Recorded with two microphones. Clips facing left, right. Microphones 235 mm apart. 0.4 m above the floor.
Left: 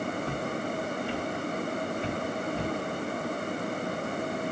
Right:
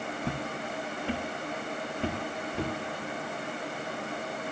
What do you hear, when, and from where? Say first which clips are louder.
0.2 s footsteps: left 3 dB; 75° right (ahead or behind), 2 m; by 2.7 s 85° right, 3.5 m